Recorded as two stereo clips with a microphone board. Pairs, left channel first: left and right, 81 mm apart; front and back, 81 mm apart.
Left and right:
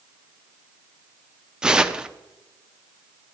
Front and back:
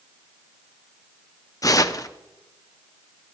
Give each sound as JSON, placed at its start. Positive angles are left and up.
{"t": 1.6, "sound": "tearing paper", "azimuth_deg": -15, "distance_m": 0.6}